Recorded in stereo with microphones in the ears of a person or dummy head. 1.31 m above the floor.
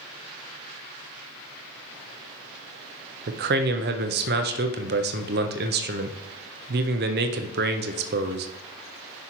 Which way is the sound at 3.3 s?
45° right (ahead or behind).